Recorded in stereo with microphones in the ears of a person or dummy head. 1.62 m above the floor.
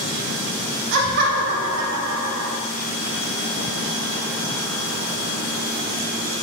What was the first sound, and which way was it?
Laughter, 65° right (ahead or behind).